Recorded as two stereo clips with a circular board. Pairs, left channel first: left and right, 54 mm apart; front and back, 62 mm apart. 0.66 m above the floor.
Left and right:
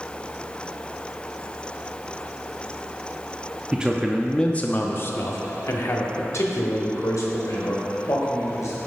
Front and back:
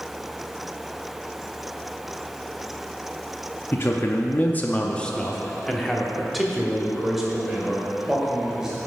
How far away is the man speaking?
About 0.6 m.